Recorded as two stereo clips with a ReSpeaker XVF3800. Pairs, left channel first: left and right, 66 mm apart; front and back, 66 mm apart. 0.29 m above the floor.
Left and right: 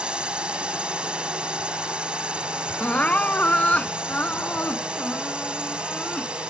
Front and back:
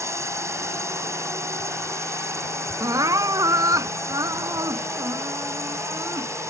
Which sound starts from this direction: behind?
A drone, at 0.0 s.